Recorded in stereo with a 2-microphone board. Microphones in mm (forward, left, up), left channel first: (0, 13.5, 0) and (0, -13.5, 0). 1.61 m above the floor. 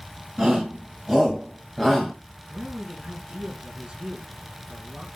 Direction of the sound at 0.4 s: 30° right (ahead or behind).